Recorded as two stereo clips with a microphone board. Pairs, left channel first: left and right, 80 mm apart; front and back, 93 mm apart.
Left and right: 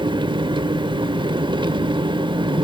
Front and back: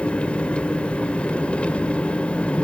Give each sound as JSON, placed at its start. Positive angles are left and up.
{"t": 0.0, "sound": "an engine running", "azimuth_deg": -75, "distance_m": 0.9}